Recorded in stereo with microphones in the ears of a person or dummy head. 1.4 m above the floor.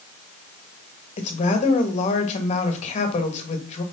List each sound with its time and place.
1.2 s a woman speaking: 35° left (ahead or behind), 2.0 m